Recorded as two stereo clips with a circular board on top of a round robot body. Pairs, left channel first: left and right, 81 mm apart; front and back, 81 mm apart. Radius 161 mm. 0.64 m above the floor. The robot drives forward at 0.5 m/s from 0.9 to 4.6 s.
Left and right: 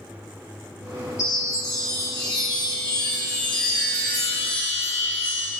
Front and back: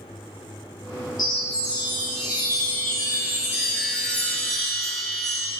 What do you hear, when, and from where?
1.2 s a chime: 40° left, 2.5 m; by 5.5 s 85° left, 1.5 m